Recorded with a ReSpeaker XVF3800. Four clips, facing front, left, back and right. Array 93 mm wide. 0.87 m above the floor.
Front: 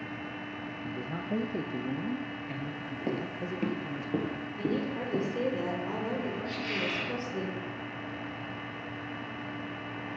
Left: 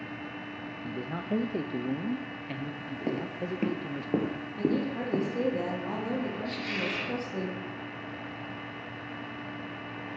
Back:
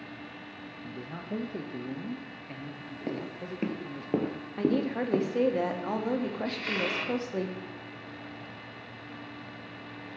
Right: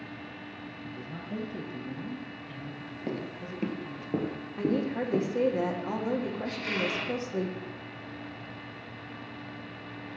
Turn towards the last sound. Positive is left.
turn(degrees=-155)